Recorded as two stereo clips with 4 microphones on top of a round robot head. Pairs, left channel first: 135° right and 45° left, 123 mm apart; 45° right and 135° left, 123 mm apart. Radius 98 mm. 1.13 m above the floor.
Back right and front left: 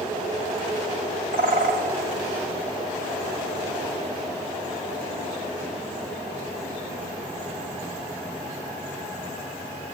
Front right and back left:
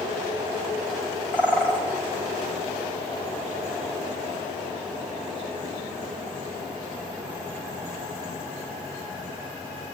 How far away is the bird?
About 4.5 m.